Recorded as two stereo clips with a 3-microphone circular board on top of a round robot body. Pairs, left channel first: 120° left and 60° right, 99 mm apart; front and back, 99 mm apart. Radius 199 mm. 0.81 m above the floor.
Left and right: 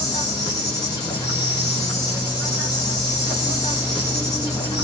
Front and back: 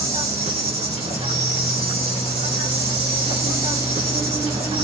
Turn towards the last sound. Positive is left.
turn(degrees=170)